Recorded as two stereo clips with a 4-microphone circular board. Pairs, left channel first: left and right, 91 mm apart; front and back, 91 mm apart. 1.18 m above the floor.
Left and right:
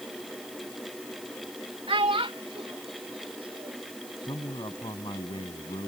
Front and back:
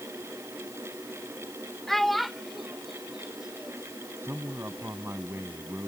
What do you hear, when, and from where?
1.9 s a child speaking: 85° right; by 3.9 s 95° right
4.2 s a man speaking: 120° left